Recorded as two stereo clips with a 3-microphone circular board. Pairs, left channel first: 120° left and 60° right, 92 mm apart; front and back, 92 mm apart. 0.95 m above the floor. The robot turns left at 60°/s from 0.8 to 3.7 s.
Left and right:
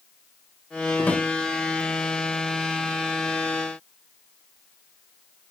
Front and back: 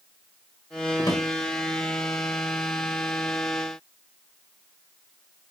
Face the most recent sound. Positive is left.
turn(degrees=-110)